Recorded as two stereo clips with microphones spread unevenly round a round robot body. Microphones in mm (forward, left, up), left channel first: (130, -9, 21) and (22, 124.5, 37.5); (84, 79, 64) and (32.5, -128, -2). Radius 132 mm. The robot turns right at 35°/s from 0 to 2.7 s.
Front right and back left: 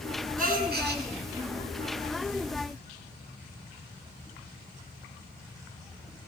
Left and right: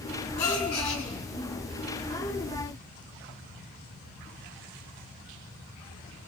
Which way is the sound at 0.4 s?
95° left.